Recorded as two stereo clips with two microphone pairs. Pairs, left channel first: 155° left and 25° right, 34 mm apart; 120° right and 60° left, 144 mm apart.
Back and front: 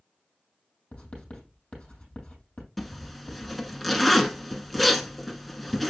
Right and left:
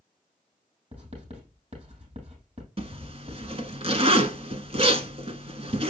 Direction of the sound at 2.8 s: 70° left.